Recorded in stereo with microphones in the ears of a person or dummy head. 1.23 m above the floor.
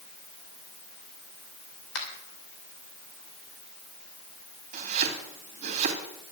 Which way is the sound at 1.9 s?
80° left.